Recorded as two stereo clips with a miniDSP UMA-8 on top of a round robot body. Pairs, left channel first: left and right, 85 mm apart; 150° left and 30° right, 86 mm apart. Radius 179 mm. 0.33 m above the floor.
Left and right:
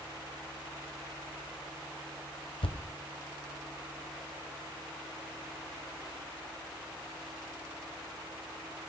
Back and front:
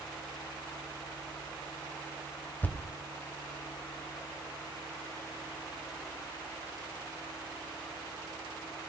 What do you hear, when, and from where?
2.6 s a thud: 80° left, 1.2 m